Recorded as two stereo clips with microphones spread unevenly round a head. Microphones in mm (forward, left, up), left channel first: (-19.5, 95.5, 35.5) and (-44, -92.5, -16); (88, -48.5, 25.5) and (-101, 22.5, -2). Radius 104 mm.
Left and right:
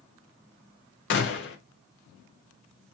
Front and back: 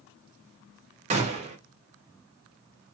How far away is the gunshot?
About 0.6 m.